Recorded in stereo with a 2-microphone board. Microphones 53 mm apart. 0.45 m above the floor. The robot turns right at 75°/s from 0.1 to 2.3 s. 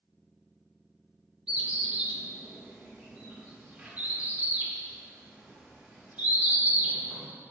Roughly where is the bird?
Centre.